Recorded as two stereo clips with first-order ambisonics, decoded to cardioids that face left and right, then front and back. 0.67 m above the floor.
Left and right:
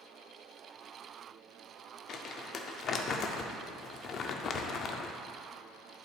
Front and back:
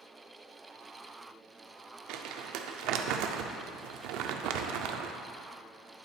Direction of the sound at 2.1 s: 150° left.